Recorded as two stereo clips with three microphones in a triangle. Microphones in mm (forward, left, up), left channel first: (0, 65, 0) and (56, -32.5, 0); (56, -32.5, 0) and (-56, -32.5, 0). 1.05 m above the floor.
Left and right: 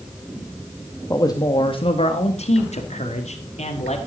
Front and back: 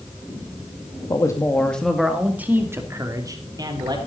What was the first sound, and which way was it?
A man speaking, 55° left.